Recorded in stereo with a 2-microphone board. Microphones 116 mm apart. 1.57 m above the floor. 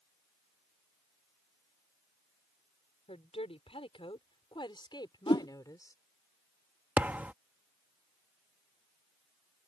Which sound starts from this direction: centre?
A thud, at 7.0 s.